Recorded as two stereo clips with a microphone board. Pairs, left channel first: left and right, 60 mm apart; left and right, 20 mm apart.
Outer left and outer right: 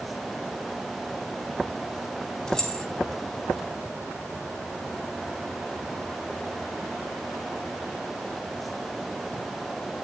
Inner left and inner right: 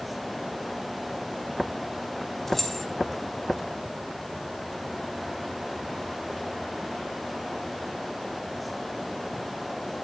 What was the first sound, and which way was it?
Keys jangling, 10° left (ahead or behind).